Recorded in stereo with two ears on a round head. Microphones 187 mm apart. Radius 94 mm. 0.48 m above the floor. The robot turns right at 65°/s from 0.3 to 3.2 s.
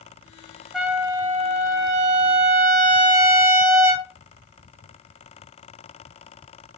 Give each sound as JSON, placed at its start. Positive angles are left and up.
{"t": 0.7, "sound": "a trumpet", "azimuth_deg": 180, "distance_m": 1.7}